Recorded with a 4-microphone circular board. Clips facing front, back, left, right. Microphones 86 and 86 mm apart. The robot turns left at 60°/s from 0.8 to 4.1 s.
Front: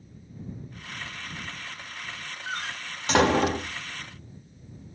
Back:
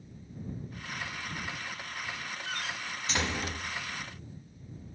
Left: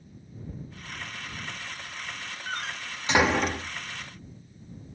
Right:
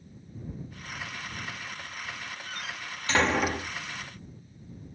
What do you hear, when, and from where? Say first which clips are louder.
2.5 s a door slam: front 5 dB, left 7 dB; 55° left; by 3.8 s 25° right